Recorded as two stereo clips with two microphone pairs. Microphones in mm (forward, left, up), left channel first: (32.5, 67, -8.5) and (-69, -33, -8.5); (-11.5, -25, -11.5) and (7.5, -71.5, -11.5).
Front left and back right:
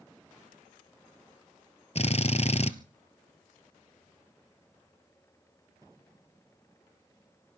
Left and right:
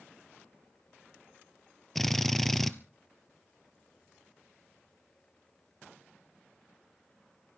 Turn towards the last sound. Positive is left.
turn(degrees=25)